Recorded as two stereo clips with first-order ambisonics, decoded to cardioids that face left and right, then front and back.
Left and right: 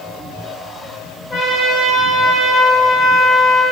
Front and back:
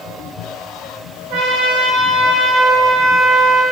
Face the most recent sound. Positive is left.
turn(degrees=160)